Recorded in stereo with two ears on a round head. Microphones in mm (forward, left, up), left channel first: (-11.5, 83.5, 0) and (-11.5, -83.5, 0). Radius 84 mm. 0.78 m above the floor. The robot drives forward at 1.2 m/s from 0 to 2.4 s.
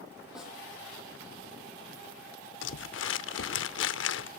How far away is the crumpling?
About 0.8 m.